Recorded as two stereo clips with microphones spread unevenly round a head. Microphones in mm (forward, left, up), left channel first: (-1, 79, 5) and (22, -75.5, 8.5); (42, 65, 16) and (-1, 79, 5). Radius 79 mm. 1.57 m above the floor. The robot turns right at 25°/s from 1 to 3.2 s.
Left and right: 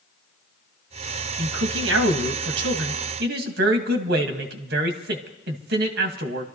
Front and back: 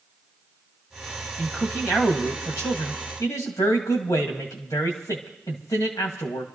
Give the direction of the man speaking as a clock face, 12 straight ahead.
3 o'clock.